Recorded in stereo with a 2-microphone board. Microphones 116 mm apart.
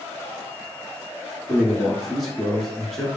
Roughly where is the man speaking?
Centre.